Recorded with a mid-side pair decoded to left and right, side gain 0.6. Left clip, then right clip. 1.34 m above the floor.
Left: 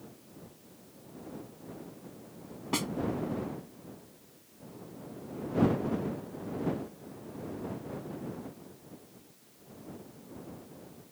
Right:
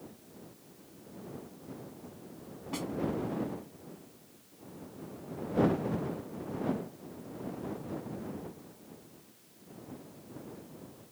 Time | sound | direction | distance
2.7 | a snare drum | 45° left | ?